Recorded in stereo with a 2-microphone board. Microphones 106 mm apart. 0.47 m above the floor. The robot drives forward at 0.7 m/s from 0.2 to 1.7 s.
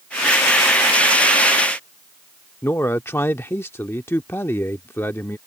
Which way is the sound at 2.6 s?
20° left (ahead or behind).